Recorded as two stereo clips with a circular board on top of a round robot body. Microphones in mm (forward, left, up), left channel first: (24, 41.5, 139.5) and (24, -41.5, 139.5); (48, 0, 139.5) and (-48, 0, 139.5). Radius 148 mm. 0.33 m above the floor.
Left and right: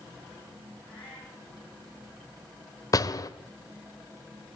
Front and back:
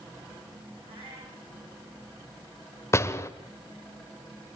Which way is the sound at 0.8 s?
165° left.